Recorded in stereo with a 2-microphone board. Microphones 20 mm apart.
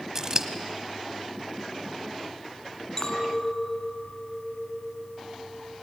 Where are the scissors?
30° right (ahead or behind), 1.3 m.